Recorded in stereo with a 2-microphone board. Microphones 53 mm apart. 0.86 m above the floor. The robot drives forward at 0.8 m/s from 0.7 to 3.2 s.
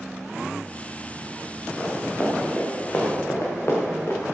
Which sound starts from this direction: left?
Running footsteps, at 1.8 s.